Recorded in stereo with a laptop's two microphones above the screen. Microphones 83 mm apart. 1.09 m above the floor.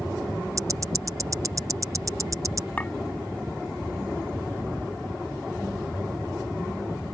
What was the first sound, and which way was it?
Ticking, 40° right (ahead or behind).